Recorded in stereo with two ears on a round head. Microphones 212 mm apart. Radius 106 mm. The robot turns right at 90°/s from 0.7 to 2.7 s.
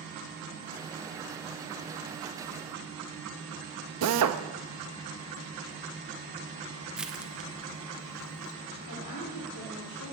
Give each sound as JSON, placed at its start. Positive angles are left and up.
{"t": 4.0, "sound": "a drill", "side_deg": -75, "distance_m": 1.0}
{"t": 7.0, "sound": "crushing", "side_deg": -5, "distance_m": 0.9}
{"t": 8.9, "sound": "a woman speaking", "side_deg": 85, "distance_m": 3.5}